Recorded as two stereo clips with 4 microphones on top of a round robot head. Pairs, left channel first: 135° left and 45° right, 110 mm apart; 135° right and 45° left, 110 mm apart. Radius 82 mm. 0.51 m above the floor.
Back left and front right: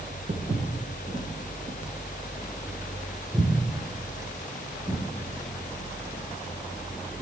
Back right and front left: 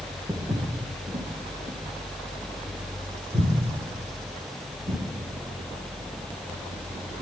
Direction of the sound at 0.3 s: 35° right.